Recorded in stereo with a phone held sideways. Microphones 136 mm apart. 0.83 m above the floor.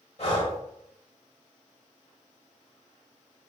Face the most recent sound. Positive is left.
turn(degrees=50)  # may be behind; listen again after turning